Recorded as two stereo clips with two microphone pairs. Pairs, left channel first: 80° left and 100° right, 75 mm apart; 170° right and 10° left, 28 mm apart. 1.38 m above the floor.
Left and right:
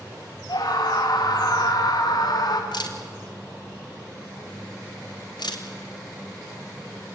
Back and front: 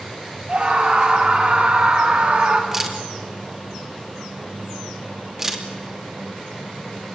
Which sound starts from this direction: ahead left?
A scream, at 0.5 s.